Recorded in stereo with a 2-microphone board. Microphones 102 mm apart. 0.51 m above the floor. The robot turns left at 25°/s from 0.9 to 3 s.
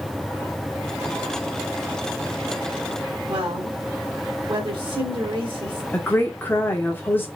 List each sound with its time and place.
3.3 s a woman speaking: 55° right (ahead or behind), 1.7 m
5.9 s a woman speaking: 20° left (ahead or behind), 0.9 m